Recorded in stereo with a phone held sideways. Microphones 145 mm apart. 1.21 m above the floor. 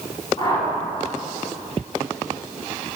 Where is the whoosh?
40° left (ahead or behind), 4 m.